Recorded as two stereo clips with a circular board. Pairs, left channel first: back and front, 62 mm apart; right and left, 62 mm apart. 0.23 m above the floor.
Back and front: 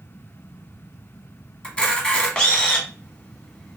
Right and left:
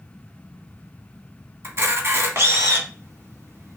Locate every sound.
1.6 s a camera shutter: 110° left, 1.1 m